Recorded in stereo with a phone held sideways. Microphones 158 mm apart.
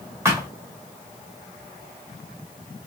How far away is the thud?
About 2 m.